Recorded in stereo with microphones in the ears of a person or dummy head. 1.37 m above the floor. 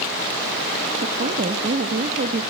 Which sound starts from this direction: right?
A woman speaking, at 1.0 s.